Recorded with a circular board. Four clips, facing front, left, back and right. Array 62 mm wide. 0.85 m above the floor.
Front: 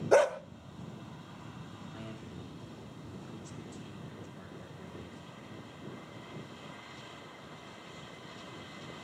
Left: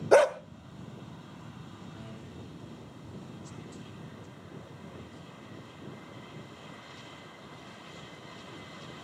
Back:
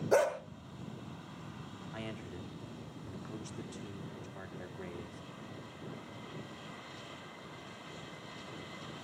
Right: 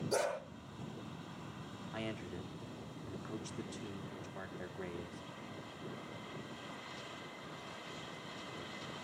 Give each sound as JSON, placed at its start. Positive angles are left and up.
{"t": 0.1, "sound": "a dog barking", "azimuth_deg": 75, "distance_m": 1.5}
{"t": 1.9, "sound": "a man speaking", "azimuth_deg": -125, "distance_m": 2.5}